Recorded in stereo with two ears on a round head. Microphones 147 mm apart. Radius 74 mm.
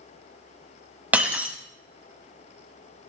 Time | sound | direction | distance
1.1 | breaking glass | 10° right (ahead or behind) | 0.8 m